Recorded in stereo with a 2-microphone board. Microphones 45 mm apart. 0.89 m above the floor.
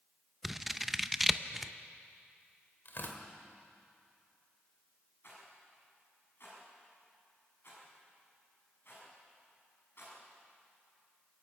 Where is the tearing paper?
50° left (ahead or behind), 2.5 m.